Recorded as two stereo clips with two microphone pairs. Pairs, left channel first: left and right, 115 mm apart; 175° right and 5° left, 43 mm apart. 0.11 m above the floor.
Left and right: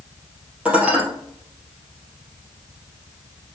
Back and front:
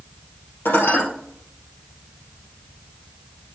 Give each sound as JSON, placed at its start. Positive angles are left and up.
{"t": 0.7, "sound": "dishes clattering", "azimuth_deg": -170, "distance_m": 2.0}